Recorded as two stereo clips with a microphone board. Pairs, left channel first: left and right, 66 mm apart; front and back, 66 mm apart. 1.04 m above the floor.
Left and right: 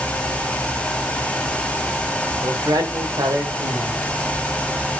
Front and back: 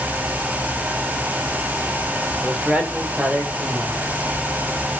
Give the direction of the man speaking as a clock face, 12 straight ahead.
4 o'clock.